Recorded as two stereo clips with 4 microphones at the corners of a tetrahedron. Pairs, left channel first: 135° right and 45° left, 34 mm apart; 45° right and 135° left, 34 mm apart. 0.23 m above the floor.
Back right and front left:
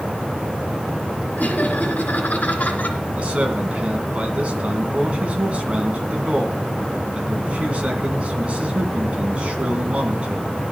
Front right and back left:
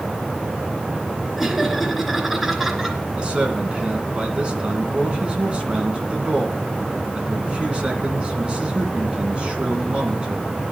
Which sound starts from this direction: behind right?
Laughter, at 1.4 s.